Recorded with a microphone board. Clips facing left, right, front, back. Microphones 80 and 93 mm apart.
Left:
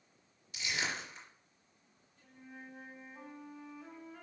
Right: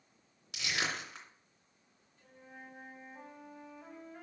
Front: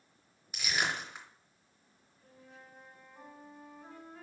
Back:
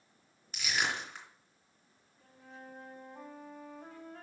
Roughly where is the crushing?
Right.